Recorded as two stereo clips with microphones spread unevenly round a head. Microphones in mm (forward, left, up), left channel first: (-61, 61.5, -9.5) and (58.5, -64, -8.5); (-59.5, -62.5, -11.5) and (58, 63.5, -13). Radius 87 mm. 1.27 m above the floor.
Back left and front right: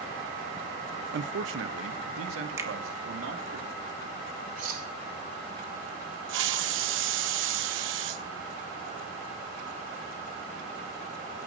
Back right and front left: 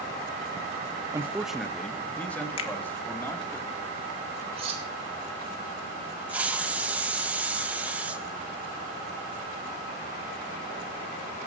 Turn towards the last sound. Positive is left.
turn(degrees=-35)